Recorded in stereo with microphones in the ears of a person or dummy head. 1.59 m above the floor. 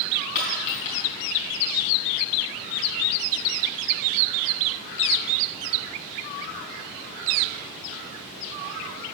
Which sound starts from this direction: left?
A dropped coin, at 0.3 s.